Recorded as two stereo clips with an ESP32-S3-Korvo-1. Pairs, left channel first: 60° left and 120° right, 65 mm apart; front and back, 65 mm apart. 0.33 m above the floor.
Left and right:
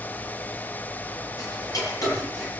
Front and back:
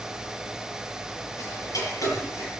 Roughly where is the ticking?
Ahead left.